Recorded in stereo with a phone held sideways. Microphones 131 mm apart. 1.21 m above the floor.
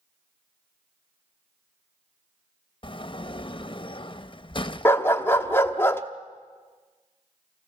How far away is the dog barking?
About 0.9 m.